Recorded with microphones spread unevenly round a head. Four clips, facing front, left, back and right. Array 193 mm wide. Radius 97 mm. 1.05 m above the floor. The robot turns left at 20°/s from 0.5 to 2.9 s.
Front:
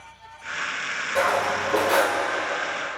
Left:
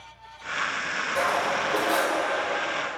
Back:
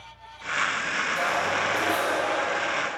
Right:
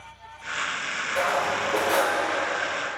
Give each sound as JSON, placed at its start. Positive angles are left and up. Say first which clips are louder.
{"t": 1.1, "sound": "cutlery clinking", "louder": "right 1 dB, front 5 dB", "azimuth_deg": 10, "distance_m": 1.9}